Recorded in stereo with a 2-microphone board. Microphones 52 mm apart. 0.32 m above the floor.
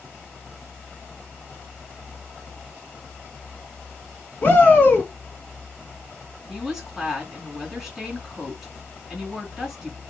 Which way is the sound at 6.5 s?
5° right (ahead or behind).